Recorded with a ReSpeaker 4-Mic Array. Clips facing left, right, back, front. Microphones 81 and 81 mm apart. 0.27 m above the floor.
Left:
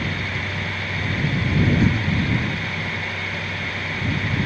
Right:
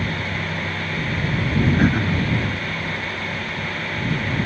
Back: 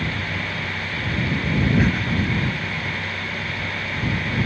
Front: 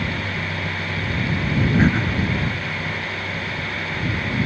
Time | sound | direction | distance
1.8 | throat clearing | 60° right | ?